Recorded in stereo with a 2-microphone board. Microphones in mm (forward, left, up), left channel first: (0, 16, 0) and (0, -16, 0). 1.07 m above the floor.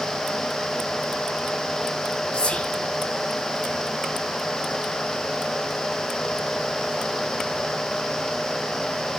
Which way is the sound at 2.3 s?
35° left (ahead or behind).